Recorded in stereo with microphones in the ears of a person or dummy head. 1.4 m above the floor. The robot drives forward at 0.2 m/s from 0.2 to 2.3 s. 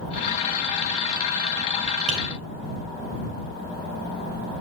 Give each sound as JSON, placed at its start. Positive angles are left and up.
{"t": 2.1, "sound": "tapping", "side_deg": -70, "distance_m": 3.5}